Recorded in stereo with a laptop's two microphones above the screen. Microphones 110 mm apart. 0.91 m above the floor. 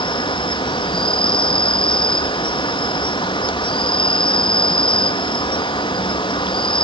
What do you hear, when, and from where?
0.0 s an insect: 45° left (ahead or behind), 0.8 m